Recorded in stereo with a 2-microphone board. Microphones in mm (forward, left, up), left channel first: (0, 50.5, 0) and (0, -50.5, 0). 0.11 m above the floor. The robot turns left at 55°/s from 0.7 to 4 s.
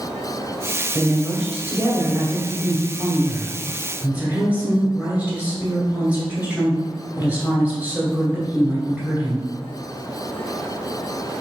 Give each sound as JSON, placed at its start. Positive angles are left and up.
{"t": 0.9, "sound": "a woman speaking", "azimuth_deg": 15, "distance_m": 1.4}